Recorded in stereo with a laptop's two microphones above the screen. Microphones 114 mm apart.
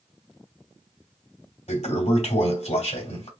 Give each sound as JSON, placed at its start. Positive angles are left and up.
{"t": 1.7, "sound": "a toilet flushing", "side_deg": 80, "distance_m": 2.5}